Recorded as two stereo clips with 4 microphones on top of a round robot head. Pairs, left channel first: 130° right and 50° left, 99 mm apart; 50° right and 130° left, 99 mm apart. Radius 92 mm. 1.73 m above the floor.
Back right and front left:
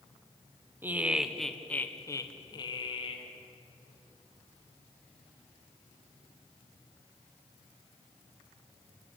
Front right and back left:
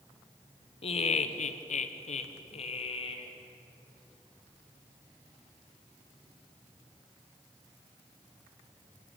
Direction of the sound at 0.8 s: 20° right.